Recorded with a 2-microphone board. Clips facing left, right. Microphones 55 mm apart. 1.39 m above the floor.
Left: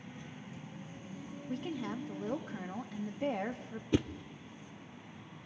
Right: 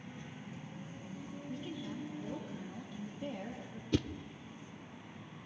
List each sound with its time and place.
1.5 s a woman speaking: 60° left (ahead or behind), 1.7 m
3.9 s a whoosh: 15° left (ahead or behind), 0.5 m